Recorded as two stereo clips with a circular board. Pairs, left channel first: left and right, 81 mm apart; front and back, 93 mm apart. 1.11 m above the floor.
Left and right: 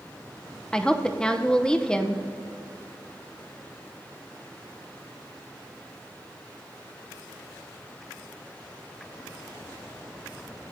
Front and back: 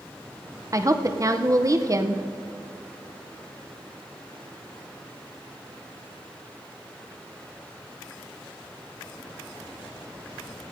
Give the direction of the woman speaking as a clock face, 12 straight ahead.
7 o'clock.